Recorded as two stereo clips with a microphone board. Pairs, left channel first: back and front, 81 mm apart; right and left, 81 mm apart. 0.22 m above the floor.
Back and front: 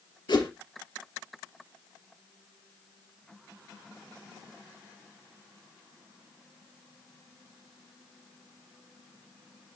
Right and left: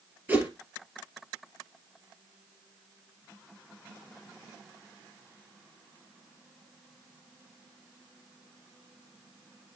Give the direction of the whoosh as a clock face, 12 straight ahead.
7 o'clock.